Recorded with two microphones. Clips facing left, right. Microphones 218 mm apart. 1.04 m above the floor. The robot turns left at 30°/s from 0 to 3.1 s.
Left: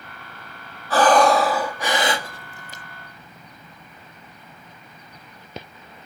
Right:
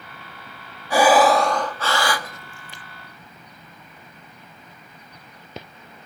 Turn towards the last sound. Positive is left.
turn(degrees=125)